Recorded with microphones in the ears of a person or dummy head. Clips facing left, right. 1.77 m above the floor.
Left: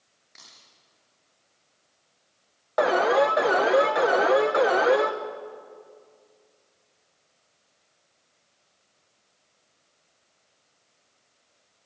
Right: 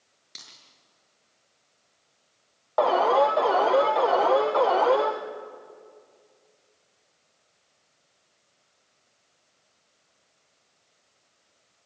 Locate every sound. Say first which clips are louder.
0.3 s a dropped coin: right 2 dB; 45° right (ahead or behind), 6.5 m
2.8 s an alarm: even; 20° left (ahead or behind), 1.0 m